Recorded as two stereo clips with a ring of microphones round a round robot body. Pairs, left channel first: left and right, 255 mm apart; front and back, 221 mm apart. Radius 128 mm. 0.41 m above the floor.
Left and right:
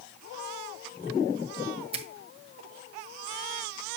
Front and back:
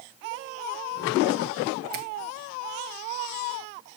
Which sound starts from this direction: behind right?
A finger snap, at 1.9 s.